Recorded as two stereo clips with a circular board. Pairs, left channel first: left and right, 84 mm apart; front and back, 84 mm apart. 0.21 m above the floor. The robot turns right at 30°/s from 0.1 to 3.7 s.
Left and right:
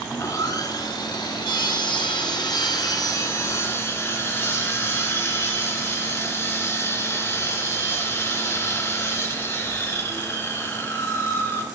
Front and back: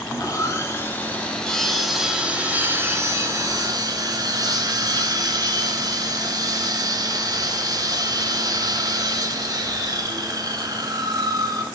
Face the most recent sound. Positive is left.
turn(degrees=145)